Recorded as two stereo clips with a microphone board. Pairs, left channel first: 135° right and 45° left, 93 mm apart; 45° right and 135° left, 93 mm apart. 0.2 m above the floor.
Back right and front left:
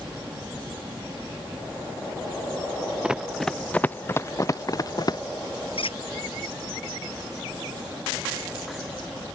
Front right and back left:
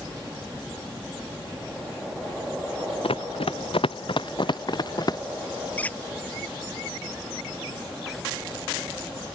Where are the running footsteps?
35° right; by 5.2 s 90° right.